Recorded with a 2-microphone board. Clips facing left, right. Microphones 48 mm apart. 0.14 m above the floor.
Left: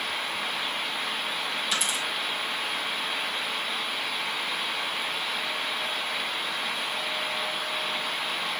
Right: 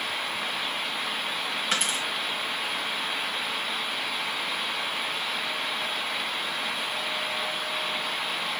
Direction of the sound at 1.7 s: 45° right (ahead or behind).